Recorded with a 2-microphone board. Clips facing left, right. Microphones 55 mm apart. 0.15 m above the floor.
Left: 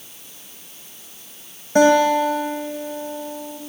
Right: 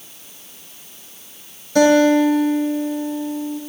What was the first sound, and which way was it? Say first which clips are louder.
A guitar: right 2 dB; 30° left (ahead or behind).